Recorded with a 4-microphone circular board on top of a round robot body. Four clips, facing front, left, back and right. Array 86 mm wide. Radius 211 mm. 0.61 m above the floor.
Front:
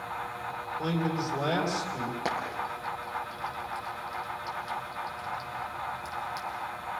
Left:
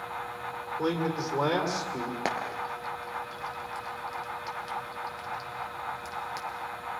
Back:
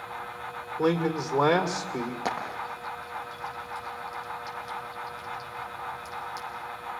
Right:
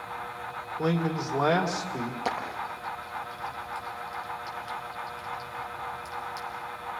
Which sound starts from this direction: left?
Frying, at 2.2 s.